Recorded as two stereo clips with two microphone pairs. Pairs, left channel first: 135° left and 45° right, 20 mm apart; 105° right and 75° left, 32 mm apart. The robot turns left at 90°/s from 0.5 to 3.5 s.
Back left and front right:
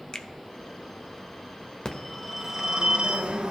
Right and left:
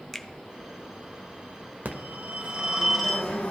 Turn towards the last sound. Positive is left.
turn(degrees=-65)